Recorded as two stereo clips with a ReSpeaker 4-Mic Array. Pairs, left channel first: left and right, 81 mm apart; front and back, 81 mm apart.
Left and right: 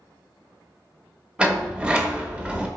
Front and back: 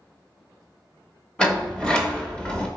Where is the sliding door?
50° right, 0.8 m.